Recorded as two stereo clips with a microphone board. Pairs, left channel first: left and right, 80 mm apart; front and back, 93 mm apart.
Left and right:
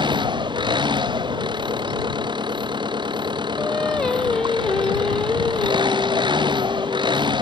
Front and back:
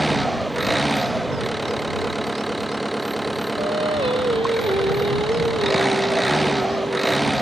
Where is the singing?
170° left.